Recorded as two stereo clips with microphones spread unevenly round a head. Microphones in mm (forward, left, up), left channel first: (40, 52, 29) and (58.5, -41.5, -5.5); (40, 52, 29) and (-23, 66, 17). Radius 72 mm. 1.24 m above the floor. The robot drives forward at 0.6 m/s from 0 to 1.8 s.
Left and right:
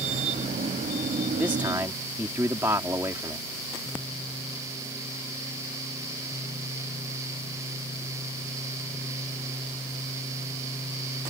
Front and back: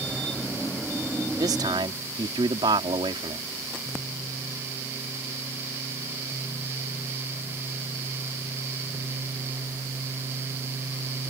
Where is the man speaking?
155° right.